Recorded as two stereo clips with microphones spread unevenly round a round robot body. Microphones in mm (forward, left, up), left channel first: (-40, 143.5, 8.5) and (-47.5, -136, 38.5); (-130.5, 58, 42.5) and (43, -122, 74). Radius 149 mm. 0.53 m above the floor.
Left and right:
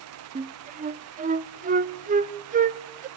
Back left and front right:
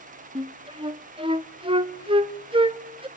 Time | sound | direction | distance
0.3 | a flute | 100° right | 0.5 m